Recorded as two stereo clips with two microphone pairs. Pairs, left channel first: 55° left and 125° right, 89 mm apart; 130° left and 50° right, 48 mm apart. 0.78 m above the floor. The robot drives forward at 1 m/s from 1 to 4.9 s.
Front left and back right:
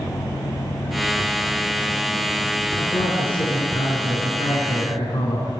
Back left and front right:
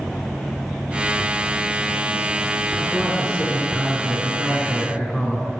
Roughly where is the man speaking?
Ahead left.